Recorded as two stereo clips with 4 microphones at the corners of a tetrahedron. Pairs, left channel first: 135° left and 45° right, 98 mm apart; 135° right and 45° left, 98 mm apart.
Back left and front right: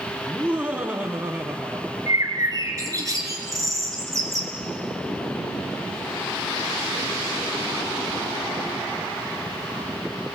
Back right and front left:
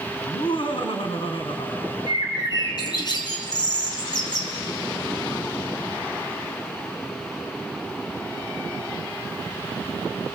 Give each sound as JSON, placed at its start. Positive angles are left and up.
{"t": 0.2, "sound": "laughter", "azimuth_deg": -125, "distance_m": 2.5}
{"t": 2.1, "sound": "a bird", "azimuth_deg": -100, "distance_m": 3.5}